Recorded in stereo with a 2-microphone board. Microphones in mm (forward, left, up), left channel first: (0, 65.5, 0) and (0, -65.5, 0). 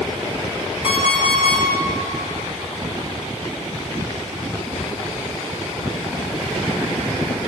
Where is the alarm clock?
45° left (ahead or behind), 3.5 m.